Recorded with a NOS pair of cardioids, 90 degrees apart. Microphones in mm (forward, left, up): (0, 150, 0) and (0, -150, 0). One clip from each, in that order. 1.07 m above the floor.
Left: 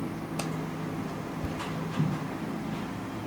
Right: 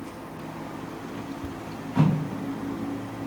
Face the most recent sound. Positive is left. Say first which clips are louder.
# left 1 dB
turn(degrees=10)